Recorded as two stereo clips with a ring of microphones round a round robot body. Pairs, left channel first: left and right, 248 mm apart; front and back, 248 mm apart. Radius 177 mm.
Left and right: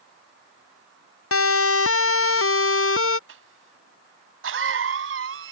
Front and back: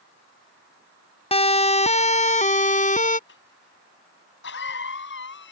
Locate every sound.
1.3 s a siren: 65° left; by 3.2 s 60° left
3.3 s a cough: 55° right